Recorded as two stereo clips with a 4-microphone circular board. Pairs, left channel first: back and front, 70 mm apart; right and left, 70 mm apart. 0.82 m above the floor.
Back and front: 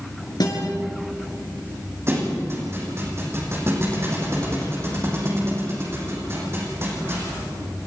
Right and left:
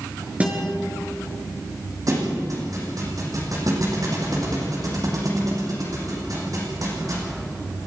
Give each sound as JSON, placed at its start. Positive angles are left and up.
{"t": 0.4, "sound": "a guitar", "azimuth_deg": 160, "distance_m": 6.0}
{"t": 2.1, "sound": "a thud", "azimuth_deg": 55, "distance_m": 6.5}